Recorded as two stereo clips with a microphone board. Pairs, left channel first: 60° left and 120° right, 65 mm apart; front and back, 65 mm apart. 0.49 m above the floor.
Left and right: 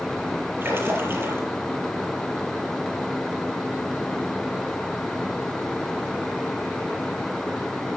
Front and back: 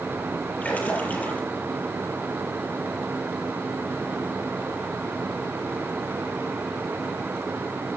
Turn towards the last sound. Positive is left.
turn(degrees=-65)